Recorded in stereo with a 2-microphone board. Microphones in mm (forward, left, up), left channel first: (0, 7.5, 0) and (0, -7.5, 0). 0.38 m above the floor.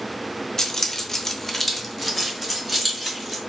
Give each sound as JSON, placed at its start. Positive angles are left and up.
{"t": 0.6, "sound": "keys jangling", "side_deg": 30, "distance_m": 0.7}